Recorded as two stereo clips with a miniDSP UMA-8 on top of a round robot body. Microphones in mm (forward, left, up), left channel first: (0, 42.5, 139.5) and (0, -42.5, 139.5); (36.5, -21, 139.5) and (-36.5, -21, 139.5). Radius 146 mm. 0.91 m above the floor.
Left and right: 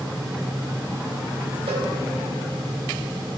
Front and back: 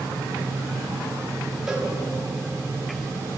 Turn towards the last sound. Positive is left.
turn(degrees=-95)